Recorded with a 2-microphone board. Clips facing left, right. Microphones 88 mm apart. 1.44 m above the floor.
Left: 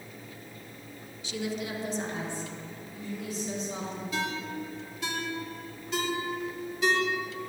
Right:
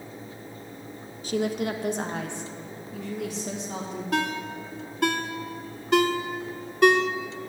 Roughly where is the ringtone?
Right.